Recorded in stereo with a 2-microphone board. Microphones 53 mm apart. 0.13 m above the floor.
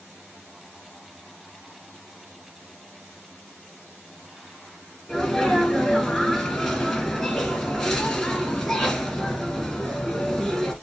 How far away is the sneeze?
About 2 m.